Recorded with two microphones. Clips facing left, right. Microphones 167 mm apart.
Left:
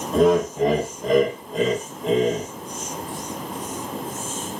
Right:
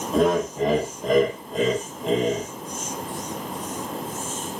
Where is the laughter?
Centre (ahead or behind), 0.5 m.